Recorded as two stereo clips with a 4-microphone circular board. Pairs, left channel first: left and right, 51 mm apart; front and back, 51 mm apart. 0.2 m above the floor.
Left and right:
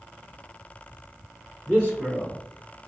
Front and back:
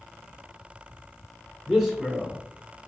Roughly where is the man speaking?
Left.